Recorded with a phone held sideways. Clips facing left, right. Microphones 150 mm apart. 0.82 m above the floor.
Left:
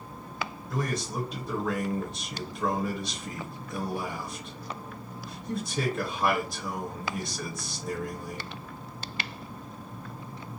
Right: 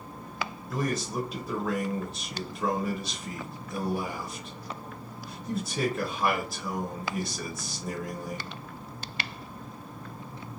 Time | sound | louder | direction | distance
0.7 | a man speaking | right 2 dB | 5° right (ahead or behind) | 0.8 m